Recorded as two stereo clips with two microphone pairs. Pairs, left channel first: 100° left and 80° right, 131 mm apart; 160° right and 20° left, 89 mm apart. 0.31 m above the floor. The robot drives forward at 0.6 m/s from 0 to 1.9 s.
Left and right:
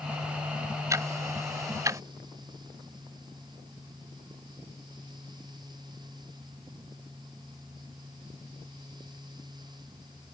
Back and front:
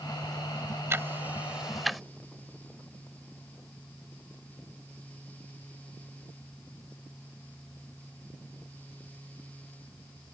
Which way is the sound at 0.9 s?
25° right.